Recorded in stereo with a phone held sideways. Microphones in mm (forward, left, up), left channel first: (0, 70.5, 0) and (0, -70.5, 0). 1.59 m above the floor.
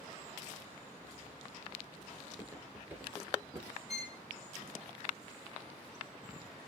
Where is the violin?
20° right (ahead or behind), 3 m.